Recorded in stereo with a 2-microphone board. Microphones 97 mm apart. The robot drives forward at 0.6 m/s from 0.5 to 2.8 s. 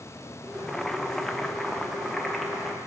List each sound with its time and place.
0.7 s boiling: 5° left (ahead or behind), 1.0 m; by 2.8 s centre (ahead or behind), 2 m